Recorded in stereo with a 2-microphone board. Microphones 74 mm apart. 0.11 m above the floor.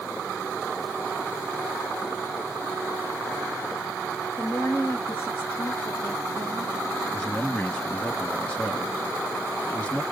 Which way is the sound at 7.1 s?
20° left (ahead or behind).